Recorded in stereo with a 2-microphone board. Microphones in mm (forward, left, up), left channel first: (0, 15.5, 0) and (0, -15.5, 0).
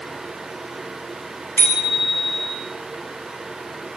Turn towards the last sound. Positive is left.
turn(degrees=70)  # may be behind; listen again after turning